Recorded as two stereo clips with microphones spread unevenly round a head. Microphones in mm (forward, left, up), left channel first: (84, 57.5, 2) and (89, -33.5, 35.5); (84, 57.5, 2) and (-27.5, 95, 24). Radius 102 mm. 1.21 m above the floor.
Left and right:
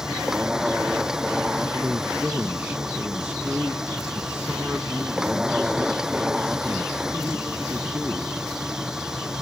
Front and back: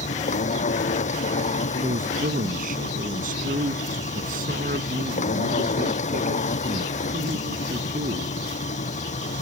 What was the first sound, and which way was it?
A machine running, 5° right.